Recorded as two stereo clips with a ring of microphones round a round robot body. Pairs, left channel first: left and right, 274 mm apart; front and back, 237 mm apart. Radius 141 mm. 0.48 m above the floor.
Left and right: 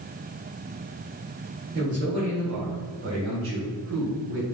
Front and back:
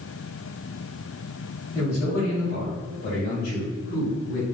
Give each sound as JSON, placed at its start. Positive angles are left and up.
{"t": 1.7, "sound": "a man speaking", "azimuth_deg": -50, "distance_m": 1.9}